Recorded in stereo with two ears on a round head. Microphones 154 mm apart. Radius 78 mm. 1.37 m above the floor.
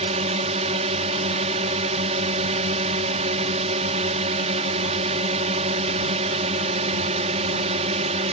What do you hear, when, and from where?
0.0 s a drone: 35° right (ahead or behind)